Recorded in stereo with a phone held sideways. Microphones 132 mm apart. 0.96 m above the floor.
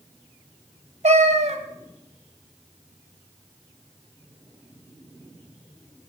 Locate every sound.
1.0 s a cat meowing: 65° right (ahead or behind), 1.4 m